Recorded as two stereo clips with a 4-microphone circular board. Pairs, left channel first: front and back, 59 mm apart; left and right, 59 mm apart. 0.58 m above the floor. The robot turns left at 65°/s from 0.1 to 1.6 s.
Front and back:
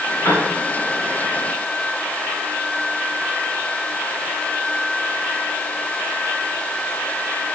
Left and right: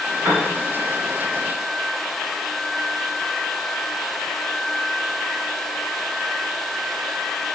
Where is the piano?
50° right, 2 m; by 0.5 s 60° right, 2 m.